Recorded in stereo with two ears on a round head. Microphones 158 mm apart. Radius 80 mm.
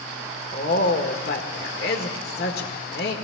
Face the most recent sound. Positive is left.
turn(degrees=65)  # may be behind; listen again after turning